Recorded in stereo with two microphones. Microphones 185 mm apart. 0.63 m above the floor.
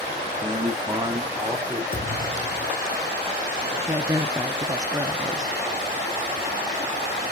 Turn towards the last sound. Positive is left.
turn(degrees=-20)  # may be behind; listen again after turning